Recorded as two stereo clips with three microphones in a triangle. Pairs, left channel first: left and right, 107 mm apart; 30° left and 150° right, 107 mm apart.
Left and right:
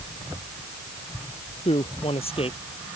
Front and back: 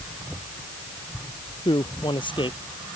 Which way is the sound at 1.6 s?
70° left.